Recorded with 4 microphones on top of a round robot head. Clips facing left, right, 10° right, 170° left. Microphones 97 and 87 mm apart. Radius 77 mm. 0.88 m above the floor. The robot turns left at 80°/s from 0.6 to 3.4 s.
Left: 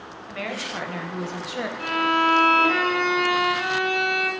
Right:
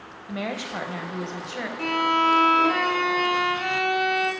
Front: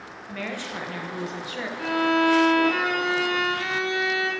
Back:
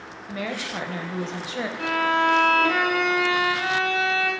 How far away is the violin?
About 1.5 m.